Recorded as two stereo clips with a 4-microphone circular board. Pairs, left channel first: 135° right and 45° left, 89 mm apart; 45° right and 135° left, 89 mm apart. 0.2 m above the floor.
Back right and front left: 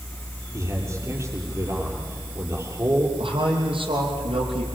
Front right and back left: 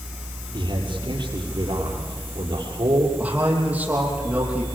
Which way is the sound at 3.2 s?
60° left.